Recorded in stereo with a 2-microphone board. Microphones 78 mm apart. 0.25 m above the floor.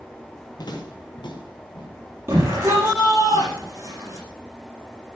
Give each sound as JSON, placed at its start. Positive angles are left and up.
{"t": 0.6, "sound": "footsteps", "side_deg": 60, "distance_m": 4.0}
{"t": 2.3, "sound": "a shout", "side_deg": -30, "distance_m": 7.5}